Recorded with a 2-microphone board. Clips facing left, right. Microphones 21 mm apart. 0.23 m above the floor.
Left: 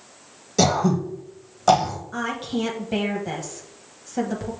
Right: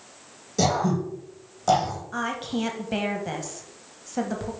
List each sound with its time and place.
0.6 s throat clearing: 25° left (ahead or behind), 1.8 m
2.1 s a woman speaking: 5° right (ahead or behind), 1.0 m